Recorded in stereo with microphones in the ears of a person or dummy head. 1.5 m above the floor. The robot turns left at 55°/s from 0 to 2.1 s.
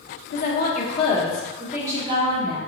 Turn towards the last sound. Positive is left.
turn(degrees=-30)